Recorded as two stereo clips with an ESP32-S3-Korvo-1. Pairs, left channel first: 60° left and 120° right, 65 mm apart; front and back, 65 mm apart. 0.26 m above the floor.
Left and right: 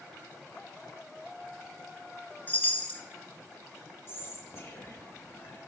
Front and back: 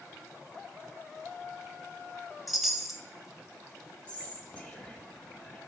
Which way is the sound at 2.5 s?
95° left.